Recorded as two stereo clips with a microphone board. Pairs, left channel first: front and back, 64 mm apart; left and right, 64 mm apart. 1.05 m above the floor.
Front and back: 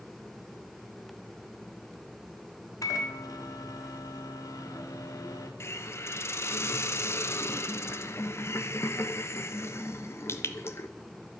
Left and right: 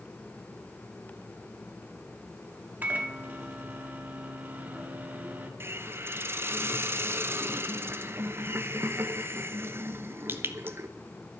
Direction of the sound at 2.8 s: 25° right.